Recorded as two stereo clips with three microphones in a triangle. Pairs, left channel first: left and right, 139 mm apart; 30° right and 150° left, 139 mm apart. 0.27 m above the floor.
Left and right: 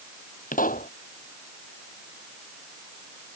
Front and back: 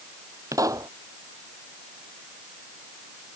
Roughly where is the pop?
Left.